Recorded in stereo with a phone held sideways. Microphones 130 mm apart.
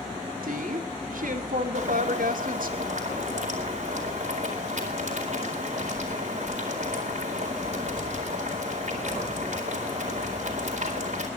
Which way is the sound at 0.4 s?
80° right.